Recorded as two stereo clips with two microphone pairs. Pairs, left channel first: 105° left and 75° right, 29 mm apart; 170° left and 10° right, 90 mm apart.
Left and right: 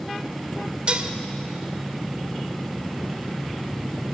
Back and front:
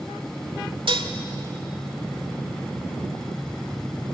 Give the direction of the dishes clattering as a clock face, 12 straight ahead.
1 o'clock.